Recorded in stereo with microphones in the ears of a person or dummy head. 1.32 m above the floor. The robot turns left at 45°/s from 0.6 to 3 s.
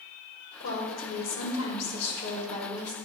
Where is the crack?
I don't hear a crack.